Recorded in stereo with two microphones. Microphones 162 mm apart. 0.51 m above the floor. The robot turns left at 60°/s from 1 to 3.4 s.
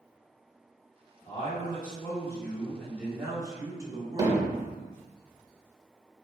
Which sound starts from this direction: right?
Hammering, at 4.2 s.